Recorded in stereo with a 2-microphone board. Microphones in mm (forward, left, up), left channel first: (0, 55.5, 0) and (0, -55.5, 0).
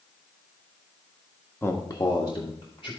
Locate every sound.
1.6 s a man speaking: 20° left (ahead or behind), 1.0 m; by 2.9 s 60° left (ahead or behind), 2 m